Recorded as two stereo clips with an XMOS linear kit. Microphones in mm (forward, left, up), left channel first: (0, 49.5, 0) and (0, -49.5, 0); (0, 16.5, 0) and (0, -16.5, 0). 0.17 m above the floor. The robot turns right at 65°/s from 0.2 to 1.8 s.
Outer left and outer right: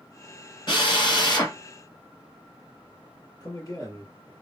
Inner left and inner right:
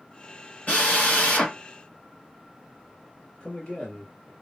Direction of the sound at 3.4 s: 40° left (ahead or behind).